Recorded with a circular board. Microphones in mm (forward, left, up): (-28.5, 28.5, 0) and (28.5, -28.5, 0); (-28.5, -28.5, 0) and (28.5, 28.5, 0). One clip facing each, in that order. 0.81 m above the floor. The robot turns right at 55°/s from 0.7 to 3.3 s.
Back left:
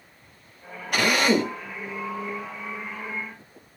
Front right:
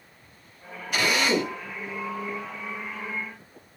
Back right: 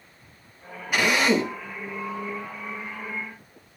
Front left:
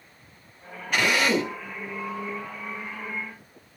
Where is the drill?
145° left, 1.6 m; by 1.6 s straight behind, 1.6 m.